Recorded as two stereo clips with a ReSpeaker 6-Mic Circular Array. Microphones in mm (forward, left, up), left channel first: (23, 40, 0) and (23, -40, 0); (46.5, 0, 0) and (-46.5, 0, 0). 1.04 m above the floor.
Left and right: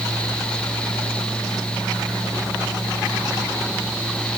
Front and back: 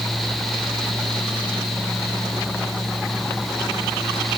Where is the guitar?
No guitar in this recording.